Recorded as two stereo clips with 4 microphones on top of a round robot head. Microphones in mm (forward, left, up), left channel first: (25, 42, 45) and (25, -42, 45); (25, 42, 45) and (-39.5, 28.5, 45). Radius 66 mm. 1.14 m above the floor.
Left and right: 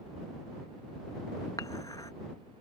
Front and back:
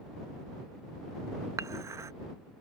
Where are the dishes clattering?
150° left.